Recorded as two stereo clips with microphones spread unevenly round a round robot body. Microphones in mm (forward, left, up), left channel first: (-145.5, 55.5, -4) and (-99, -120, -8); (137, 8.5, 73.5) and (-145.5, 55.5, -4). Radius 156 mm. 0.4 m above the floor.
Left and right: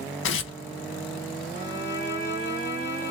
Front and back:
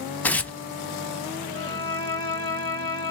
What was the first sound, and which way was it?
Tearing paper, 75° left.